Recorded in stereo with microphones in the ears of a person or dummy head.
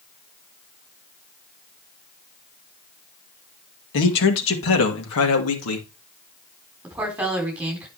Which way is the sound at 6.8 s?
5° right (ahead or behind).